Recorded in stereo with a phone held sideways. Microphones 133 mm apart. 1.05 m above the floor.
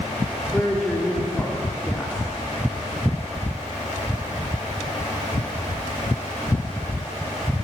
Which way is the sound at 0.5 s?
5° left (ahead or behind).